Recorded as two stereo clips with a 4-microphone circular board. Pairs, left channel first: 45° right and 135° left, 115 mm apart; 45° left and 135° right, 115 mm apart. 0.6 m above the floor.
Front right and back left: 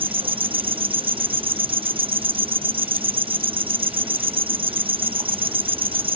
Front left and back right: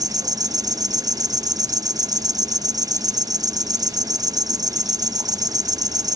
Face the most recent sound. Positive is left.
turn(degrees=170)